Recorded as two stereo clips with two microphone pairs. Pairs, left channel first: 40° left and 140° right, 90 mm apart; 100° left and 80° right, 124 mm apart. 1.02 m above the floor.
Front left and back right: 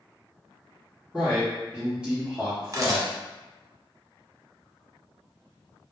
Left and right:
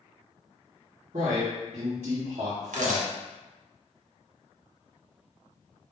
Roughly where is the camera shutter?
Right.